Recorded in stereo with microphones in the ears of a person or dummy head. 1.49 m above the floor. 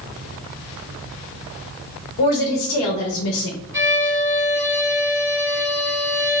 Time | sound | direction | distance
2.2 | a woman speaking | 70° left (ahead or behind) | 0.8 m
3.7 | a violin | 15° right (ahead or behind) | 1.2 m